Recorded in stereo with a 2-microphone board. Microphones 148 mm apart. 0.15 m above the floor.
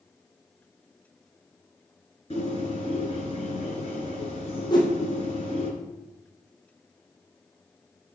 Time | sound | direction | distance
2.3 | a bird | 45° left (ahead or behind) | 2.5 m
4.7 | a whoosh | 30° left (ahead or behind) | 1.7 m